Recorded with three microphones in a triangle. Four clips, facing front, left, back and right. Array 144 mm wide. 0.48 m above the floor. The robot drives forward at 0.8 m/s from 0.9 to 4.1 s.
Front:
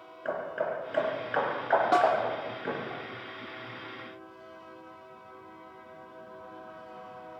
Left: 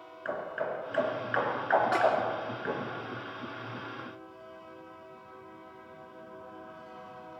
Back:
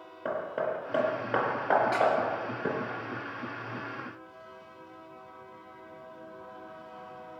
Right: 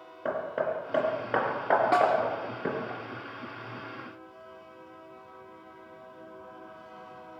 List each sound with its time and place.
0.2 s hammering: 120° right, 6.5 m; by 2.9 s 130° right, 7.5 m
1.9 s a snare drum: 50° right, 5.5 m